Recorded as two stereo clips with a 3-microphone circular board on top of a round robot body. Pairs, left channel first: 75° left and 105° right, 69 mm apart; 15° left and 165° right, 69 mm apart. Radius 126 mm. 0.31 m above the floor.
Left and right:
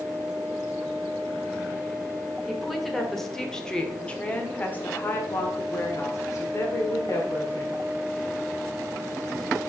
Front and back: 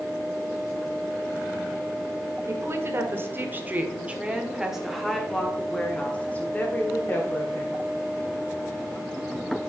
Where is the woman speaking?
170° left, 2 m; by 7.8 s 60° left, 2.5 m.